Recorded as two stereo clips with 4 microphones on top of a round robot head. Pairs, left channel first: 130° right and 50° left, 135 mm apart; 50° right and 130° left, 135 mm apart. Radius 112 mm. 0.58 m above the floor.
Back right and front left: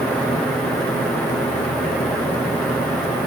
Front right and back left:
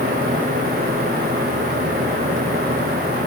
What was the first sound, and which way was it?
Only background noise.